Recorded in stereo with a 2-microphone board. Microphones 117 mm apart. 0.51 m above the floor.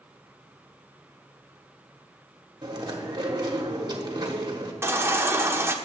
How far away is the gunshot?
I don't hear a gunshot.